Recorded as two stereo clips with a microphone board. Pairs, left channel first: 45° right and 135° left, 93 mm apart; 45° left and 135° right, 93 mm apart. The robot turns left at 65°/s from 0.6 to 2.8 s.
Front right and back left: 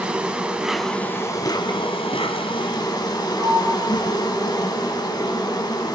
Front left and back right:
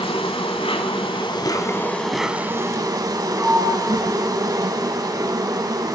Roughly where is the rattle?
I don't hear a rattle.